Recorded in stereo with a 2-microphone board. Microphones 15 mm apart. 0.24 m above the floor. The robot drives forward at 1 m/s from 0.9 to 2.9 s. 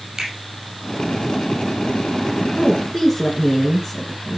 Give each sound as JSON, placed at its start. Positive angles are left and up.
{"t": 0.2, "sound": "a finger snap", "side_deg": -50, "distance_m": 5.5}
{"t": 2.6, "sound": "a woman speaking", "side_deg": 5, "distance_m": 3.0}